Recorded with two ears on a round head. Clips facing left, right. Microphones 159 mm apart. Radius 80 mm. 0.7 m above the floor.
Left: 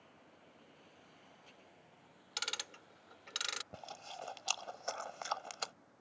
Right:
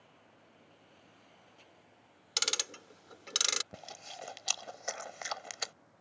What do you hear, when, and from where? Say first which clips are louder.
2.4 s ticking: right 7 dB; 60° right (ahead or behind)
3.7 s chewing: right 1 dB; 20° right (ahead or behind)